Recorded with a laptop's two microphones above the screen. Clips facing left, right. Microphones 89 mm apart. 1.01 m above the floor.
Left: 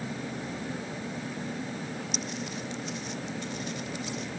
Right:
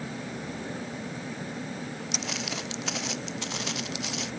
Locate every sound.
2.1 s footsteps: 85° right; by 4.3 s 80° right